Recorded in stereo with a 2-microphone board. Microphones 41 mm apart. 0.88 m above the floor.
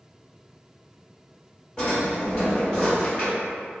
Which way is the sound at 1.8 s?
20° left (ahead or behind).